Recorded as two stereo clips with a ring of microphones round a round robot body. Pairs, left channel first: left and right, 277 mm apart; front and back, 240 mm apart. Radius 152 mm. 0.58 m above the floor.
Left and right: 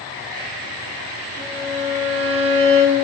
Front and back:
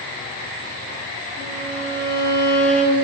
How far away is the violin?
About 1.8 m.